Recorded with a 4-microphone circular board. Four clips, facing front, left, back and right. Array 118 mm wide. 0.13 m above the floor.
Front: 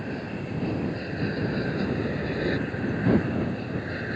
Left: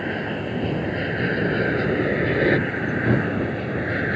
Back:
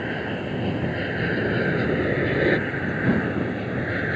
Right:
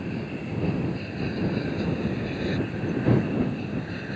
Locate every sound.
0.0 s an aircraft: 130° left; by 4.2 s 125° left